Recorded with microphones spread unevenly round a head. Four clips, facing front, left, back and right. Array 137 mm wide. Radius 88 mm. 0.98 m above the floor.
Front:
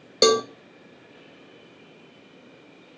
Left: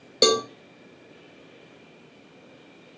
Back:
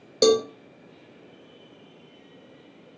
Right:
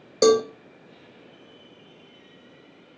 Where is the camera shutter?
No camera shutter in this recording.